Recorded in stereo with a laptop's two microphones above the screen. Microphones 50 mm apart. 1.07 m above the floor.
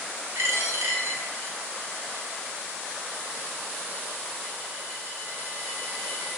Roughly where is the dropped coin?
Right.